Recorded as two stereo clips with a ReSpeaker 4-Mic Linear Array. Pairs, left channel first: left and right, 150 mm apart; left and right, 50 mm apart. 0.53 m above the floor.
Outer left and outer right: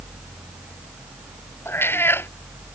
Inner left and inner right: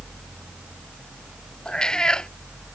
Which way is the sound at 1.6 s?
15° left (ahead or behind).